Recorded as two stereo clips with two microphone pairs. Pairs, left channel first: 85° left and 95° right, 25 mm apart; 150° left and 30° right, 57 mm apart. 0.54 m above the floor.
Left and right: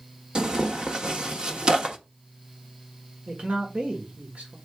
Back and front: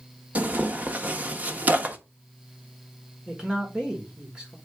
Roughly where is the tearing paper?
Ahead right.